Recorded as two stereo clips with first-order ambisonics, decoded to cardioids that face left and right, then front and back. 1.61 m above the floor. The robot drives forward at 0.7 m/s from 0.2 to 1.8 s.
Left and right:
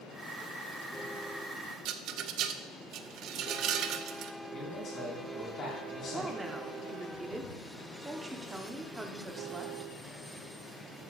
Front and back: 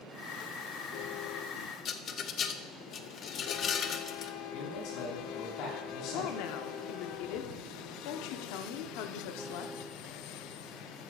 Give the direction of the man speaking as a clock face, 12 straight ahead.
11 o'clock.